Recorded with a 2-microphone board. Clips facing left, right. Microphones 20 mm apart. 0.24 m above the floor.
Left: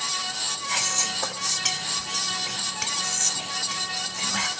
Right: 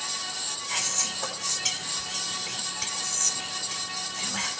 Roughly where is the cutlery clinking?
No cutlery clinking in this recording.